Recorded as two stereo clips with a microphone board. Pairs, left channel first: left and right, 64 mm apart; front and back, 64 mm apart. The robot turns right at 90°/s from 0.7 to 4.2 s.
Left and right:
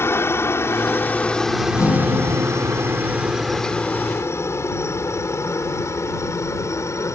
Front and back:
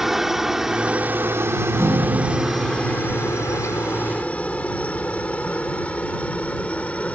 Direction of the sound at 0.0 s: 100° left.